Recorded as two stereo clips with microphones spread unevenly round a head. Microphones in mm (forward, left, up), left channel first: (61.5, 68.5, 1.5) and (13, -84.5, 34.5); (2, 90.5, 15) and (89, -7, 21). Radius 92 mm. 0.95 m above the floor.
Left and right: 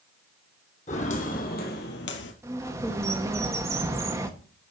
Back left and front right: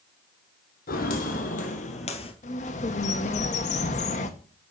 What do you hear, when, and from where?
0.9 s footsteps: 130° left, 2.5 m; by 2.3 s 95° left, 1.5 m
2.4 s a bird: 175° left, 1.0 m